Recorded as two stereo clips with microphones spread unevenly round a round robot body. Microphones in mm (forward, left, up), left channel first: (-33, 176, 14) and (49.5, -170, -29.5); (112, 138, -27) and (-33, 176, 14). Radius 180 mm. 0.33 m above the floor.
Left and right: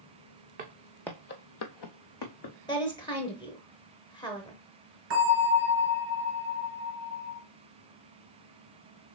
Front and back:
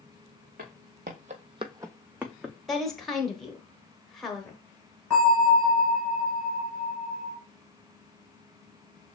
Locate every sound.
0.6 s footsteps: 145° right, 1.1 m; by 2.6 s 80° left, 1.7 m
2.7 s a woman speaking: 25° left, 0.8 m
5.1 s a bell: 135° right, 4 m